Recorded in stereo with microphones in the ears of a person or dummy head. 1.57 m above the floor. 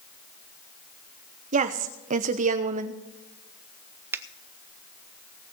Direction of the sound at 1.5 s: 40° right (ahead or behind).